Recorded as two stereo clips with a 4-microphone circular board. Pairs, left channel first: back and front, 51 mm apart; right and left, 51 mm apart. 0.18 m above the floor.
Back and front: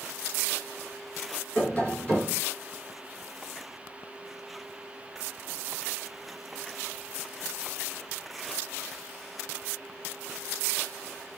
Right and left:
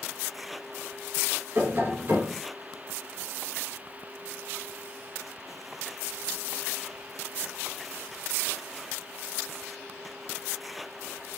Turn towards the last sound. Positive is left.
turn(degrees=115)